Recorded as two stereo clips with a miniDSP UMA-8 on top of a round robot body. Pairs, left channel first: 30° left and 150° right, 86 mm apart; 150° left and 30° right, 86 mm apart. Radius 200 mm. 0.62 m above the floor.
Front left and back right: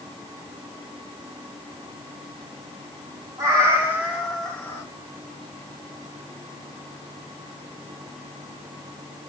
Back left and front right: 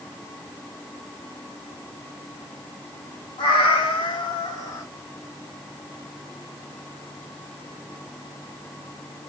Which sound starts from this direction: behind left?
A cat meowing, at 3.4 s.